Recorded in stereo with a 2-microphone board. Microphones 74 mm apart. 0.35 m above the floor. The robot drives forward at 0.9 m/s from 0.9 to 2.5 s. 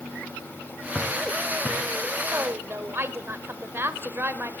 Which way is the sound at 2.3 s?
35° right (ahead or behind).